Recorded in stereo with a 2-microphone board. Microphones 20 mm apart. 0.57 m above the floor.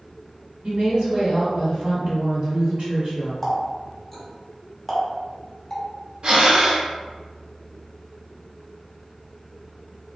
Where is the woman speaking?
60° right (ahead or behind), 1.5 m.